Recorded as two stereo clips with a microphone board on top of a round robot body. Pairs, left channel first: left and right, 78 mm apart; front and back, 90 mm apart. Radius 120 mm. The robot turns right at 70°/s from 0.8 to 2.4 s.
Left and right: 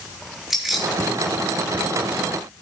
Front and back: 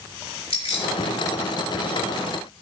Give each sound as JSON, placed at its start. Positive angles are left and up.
{"t": 0.5, "sound": "keys jangling", "azimuth_deg": -5, "distance_m": 4.5}